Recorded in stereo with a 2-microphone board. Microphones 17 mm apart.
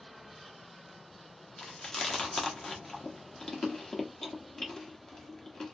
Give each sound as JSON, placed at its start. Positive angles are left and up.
{"t": 1.6, "sound": "chewing", "side_deg": 40, "distance_m": 0.7}